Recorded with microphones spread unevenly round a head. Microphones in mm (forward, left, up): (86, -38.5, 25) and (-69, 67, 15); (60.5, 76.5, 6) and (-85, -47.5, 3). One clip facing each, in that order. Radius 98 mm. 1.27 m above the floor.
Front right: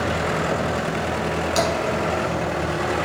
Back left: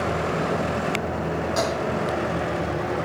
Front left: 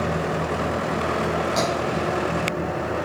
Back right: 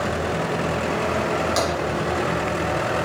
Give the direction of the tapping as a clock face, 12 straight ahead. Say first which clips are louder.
Front right 3 dB, even; 3 o'clock.